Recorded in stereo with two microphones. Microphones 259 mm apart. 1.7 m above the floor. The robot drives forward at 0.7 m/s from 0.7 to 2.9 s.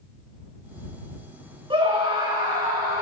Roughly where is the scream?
Centre.